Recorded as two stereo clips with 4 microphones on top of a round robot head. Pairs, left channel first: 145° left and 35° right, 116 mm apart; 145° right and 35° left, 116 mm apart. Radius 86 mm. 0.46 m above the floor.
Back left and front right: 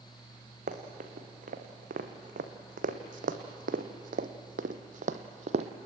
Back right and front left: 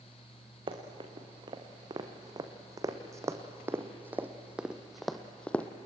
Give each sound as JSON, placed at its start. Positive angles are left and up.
{"t": 0.7, "sound": "running footsteps", "azimuth_deg": -20, "distance_m": 3.0}